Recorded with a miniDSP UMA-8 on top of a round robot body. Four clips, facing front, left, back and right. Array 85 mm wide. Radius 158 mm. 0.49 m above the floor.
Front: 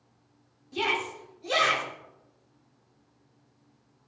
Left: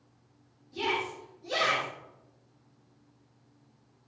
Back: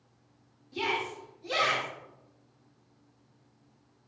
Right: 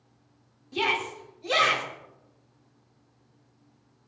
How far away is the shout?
About 6.5 m.